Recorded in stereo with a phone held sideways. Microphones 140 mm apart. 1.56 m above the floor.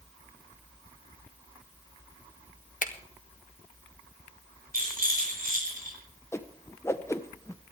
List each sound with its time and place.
2.8 s a finger snap: 70° left (ahead or behind), 1.4 m
4.7 s a rattle: 75° right (ahead or behind), 5.5 m
6.3 s a whoosh: 20° left (ahead or behind), 1.0 m